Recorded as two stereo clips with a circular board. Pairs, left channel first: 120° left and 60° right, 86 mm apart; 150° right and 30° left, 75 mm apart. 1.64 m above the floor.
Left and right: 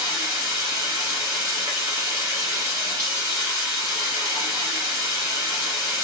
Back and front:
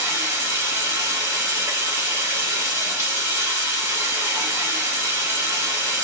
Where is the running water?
10° right, 1.3 m.